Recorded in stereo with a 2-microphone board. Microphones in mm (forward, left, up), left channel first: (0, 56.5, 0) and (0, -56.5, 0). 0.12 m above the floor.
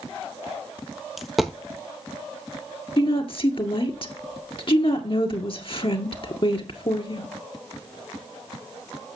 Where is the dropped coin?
Centre (ahead or behind), 1.0 m.